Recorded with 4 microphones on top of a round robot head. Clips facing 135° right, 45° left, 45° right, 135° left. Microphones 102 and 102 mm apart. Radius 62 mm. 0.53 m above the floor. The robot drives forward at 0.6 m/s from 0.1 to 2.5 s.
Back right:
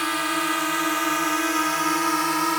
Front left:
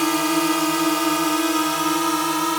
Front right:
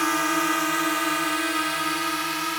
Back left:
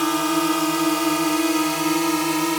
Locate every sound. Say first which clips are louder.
0.0 s a drone: front left 6 dB, back left 3 dB; 75° left; by 2.6 s 120° left